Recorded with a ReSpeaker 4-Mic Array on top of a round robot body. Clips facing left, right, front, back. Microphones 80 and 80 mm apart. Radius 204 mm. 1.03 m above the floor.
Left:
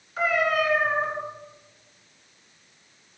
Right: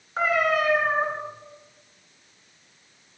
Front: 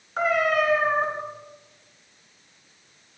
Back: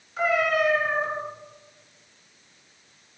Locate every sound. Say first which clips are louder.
0.2 s a cat meowing: right 1 dB, front 1 dB; 40° right, 7 m